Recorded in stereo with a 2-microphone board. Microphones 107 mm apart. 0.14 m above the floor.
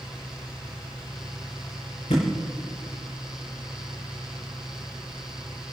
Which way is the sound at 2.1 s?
85° left.